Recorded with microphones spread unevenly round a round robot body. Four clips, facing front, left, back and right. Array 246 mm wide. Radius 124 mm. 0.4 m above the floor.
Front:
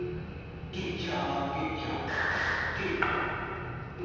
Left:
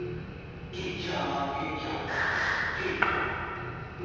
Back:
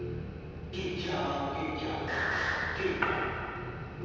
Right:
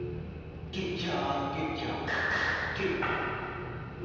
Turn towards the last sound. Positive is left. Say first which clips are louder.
# left 5 dB, front 1 dB
turn(degrees=90)